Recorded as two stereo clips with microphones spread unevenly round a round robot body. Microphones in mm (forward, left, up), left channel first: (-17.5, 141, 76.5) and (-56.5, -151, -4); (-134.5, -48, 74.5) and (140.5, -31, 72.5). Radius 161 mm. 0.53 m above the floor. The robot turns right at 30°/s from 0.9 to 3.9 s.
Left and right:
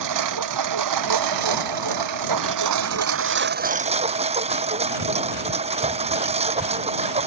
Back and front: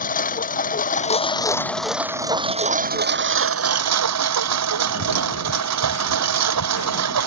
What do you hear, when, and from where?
0.0 s a lawn mower: 115° right; by 7.3 s 25° right